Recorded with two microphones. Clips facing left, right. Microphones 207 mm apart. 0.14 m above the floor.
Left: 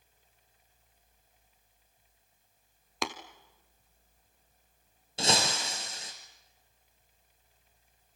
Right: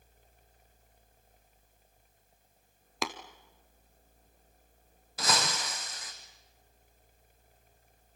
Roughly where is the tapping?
Centre.